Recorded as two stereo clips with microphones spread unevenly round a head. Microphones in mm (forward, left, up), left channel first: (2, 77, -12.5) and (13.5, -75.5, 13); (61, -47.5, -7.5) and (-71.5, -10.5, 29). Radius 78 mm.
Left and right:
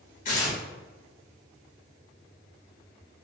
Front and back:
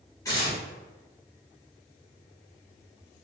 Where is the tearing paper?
60° left, 1.5 m.